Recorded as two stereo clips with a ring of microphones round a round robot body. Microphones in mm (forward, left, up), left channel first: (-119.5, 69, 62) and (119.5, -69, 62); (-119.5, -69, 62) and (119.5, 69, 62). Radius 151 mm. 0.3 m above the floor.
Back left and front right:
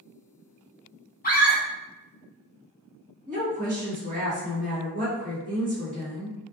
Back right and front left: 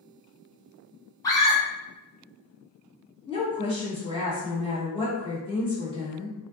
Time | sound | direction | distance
1.2 | a scream | 145° left | 1.0 m
3.3 | a woman speaking | 85° right | 1.6 m